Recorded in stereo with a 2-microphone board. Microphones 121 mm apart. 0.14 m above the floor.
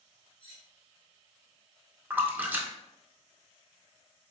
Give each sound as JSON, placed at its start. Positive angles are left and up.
{"t": 0.4, "sound": "cutlery clinking", "side_deg": 50, "distance_m": 1.3}
{"t": 2.1, "sound": "a splash", "side_deg": -15, "distance_m": 0.5}